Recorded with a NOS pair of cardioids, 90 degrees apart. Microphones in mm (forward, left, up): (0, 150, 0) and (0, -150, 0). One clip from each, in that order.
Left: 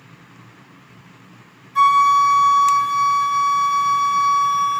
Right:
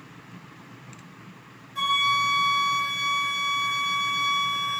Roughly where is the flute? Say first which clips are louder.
Left 10 dB; left.